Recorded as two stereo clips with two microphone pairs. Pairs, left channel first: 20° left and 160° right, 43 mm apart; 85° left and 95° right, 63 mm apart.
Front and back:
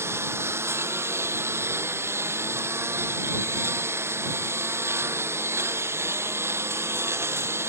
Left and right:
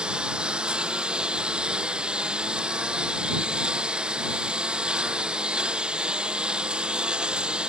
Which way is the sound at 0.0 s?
170° right.